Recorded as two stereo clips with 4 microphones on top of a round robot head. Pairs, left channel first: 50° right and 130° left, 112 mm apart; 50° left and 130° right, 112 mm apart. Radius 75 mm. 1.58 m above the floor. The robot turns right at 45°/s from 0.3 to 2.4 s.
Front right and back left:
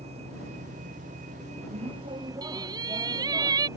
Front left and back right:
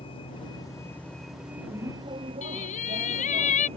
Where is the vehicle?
95° left; by 3.8 s 165° right.